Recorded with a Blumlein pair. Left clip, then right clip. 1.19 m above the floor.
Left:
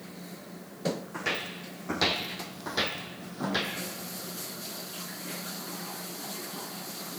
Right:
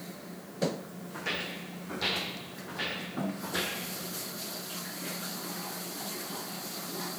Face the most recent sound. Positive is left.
turn(degrees=80)